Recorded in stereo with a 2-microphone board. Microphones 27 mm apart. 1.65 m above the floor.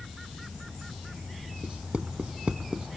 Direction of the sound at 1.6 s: 50° right (ahead or behind).